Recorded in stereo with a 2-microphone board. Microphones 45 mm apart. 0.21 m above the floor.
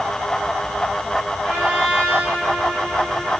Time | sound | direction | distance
1.4 | a trumpet | 35° right (ahead or behind) | 7 m